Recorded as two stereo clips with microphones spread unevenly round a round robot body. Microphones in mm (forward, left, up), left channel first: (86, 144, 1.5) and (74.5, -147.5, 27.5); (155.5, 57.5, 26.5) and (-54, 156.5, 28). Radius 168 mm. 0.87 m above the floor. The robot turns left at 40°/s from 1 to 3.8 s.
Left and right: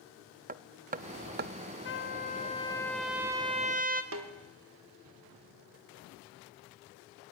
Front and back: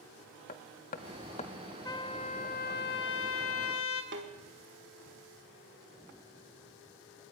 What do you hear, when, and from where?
0.5 s hammering: 60° right, 0.6 m; by 1.5 s 80° right, 0.6 m
1.9 s a trumpet: 50° left, 1.9 m; by 4.0 s 30° right, 1.9 m
4.1 s a snare drum: 145° right, 1.5 m